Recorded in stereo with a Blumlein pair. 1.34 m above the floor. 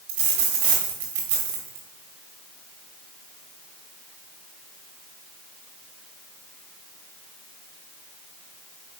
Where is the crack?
I don't hear a crack.